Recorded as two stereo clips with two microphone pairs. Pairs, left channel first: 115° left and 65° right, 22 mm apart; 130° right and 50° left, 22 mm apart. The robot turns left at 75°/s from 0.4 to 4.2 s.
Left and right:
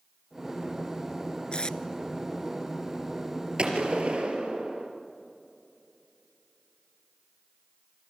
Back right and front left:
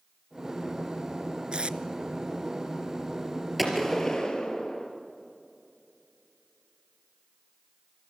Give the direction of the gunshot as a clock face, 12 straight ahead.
1 o'clock.